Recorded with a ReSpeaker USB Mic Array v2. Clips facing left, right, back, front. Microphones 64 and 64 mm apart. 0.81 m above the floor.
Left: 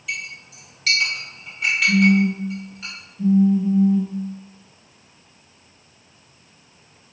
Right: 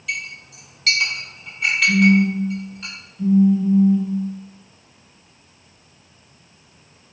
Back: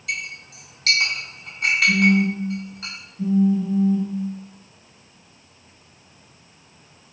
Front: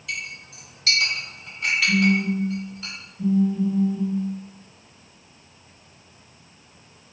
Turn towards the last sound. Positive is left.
turn(degrees=165)